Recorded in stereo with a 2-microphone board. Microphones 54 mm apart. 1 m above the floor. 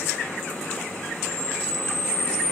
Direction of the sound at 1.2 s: 55° right (ahead or behind).